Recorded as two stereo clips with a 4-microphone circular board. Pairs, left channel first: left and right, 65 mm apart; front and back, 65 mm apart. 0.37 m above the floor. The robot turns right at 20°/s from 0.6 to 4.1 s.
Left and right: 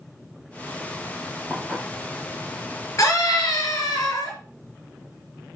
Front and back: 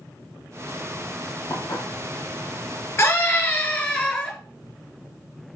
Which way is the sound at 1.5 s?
10° right.